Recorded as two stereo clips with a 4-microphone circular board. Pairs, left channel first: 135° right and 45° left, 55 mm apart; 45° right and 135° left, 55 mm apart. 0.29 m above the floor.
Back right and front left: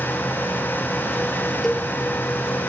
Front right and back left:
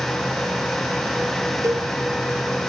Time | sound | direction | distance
1.6 | a cowbell | 145° left | 1.2 m